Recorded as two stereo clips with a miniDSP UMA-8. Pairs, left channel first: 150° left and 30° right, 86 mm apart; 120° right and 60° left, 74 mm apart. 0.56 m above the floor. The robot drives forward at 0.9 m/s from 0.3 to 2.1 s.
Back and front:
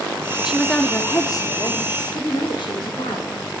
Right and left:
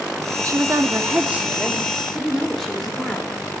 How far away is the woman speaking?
About 0.9 m.